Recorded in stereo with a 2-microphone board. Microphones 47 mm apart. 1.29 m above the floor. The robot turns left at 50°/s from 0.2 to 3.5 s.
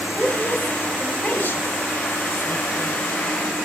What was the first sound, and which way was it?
A woman speaking, 25° right (ahead or behind).